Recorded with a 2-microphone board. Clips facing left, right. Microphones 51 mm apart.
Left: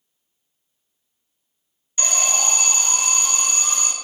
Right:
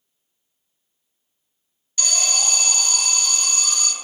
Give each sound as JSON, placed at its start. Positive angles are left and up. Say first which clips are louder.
{"t": 2.0, "sound": "an alarm", "louder": "left 1 dB", "side_deg": 25, "distance_m": 0.9}